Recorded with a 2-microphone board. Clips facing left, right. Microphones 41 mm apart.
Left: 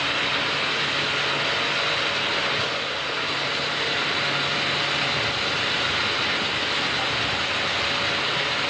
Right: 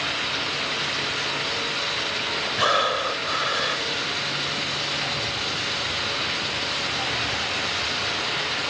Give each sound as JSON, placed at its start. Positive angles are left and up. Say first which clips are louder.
{"t": 2.6, "sound": "breathing", "louder": "right 5 dB", "side_deg": -75}